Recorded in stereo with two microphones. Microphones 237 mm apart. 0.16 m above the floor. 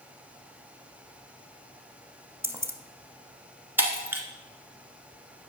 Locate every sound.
2.4 s keys jangling: 10° right (ahead or behind), 0.9 m
3.8 s breaking glass: 10° right (ahead or behind), 1.4 m